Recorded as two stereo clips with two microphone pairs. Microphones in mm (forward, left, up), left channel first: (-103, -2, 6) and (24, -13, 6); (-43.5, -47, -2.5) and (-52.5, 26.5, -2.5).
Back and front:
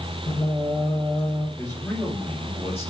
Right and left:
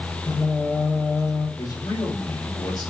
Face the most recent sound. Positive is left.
turn(degrees=-115)